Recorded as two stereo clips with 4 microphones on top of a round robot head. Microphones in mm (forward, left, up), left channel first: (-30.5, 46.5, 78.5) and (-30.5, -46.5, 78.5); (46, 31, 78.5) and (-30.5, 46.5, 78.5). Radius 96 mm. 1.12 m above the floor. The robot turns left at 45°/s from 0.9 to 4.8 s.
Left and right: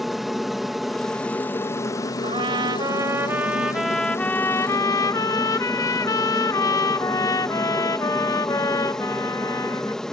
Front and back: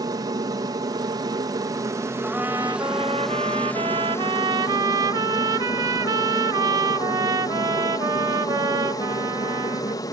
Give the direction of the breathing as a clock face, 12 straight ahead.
I don't hear breathing.